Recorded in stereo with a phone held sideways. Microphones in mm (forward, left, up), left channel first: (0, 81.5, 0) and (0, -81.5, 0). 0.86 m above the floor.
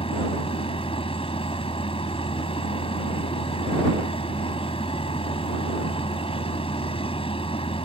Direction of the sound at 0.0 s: 35° left (ahead or behind).